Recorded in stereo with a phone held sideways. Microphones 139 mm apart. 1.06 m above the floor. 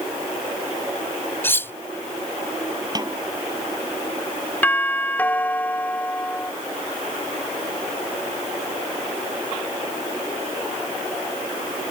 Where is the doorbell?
15° left (ahead or behind).